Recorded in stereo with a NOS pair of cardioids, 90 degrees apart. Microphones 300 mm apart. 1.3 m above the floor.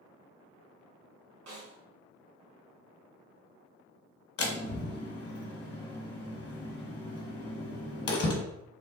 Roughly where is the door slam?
Ahead left.